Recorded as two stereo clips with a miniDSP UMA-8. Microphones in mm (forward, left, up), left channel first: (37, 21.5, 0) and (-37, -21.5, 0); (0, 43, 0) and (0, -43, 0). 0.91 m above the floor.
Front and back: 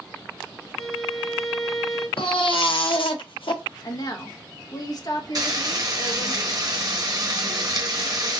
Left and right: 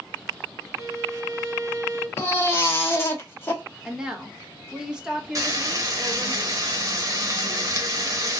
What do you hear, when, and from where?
0.7 s a violin: 60° right, 0.8 m
2.2 s a baby crying: 30° left, 0.9 m
3.8 s a woman speaking: 10° right, 1.1 m
5.3 s frying: 125° right, 0.9 m